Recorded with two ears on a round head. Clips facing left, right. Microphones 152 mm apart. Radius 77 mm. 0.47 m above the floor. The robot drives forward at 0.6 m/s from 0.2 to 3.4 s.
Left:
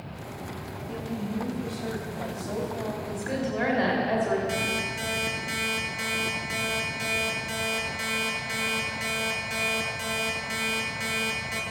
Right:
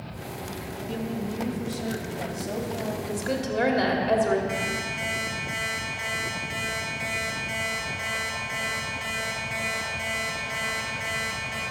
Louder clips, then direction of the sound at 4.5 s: Even; 45° left (ahead or behind).